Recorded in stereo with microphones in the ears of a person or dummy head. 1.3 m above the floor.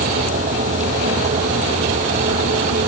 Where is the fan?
40° right (ahead or behind).